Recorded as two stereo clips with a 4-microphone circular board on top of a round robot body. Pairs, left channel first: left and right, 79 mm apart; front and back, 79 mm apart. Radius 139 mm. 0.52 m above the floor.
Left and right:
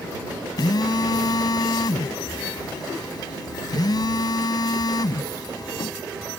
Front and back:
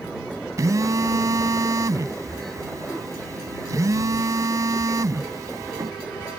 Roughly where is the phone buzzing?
Behind left.